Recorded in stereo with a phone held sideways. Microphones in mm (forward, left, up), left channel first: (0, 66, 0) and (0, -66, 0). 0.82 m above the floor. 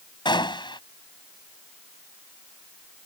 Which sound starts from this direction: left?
A gunshot, at 0.2 s.